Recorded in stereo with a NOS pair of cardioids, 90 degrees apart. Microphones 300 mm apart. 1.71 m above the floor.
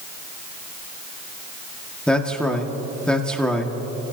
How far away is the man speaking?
About 1.8 m.